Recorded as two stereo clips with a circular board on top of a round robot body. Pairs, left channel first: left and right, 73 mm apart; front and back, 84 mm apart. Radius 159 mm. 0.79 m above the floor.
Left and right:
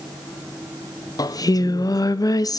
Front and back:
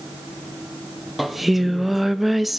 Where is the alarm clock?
I don't hear an alarm clock.